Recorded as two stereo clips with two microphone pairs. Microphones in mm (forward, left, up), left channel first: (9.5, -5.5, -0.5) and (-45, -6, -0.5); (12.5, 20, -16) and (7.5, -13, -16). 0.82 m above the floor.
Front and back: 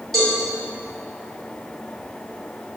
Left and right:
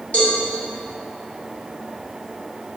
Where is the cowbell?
85° left, 1.3 m.